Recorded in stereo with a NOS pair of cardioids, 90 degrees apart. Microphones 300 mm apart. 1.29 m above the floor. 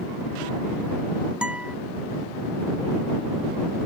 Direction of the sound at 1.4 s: 5° right.